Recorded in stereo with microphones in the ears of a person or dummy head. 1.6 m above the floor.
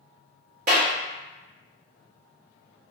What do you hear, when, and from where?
0.7 s a clap: 45° right (ahead or behind), 0.9 m